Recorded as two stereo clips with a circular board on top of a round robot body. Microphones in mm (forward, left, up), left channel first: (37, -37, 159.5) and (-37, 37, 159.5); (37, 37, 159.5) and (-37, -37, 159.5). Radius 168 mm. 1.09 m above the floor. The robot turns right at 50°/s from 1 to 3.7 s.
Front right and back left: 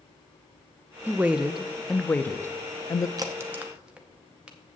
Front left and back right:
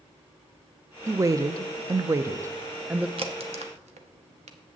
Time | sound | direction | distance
1.1 | a woman speaking | 165° right | 0.5 m
3.2 | a crack | 170° right | 0.7 m